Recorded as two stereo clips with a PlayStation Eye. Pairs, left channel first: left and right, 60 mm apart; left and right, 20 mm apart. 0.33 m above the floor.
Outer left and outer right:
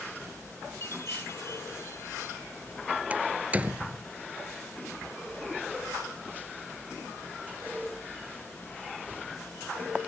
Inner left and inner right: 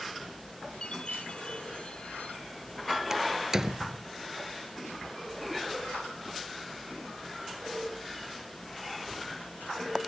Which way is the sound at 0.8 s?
50° left (ahead or behind).